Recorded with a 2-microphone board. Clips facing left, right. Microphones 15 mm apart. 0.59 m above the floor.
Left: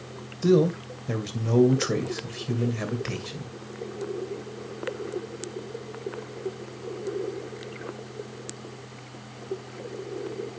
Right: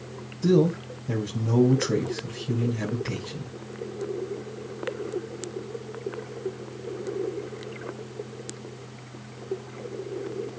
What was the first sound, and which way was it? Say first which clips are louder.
A man speaking: even; 35° left (ahead or behind).